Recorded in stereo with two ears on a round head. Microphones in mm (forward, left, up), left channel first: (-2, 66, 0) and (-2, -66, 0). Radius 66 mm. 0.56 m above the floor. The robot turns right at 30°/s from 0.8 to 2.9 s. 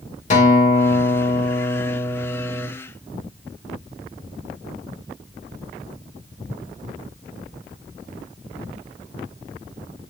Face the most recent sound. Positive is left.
turn(degrees=-170)